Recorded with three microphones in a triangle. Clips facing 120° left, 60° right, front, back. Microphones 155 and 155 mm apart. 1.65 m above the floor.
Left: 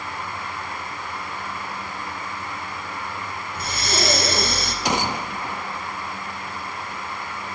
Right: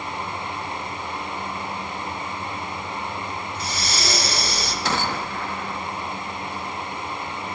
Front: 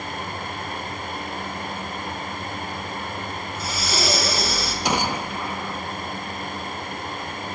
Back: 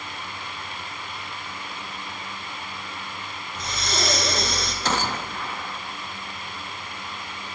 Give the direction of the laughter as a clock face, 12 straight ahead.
No laughter in this recording.